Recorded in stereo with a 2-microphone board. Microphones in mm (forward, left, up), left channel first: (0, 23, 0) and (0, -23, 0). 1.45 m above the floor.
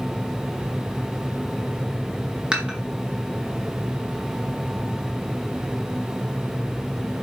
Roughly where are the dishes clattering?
Right.